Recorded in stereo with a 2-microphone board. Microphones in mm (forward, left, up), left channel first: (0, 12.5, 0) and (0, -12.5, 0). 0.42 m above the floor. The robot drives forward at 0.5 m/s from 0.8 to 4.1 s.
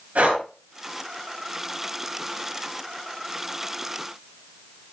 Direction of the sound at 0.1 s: 80° right.